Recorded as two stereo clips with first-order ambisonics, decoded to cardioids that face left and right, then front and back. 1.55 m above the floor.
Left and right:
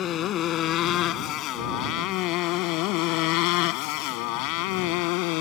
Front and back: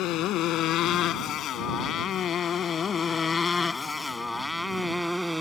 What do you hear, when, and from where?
0.0 s a motorcycle: 40° left; by 5.4 s 95° left